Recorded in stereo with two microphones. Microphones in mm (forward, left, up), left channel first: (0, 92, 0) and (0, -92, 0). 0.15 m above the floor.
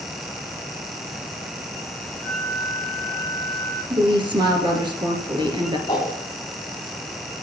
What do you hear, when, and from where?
2.2 s a flute: 80° right, 4 m
3.9 s a woman speaking: 25° right (ahead or behind), 2.5 m
5.9 s a whoosh: 30° left (ahead or behind), 5 m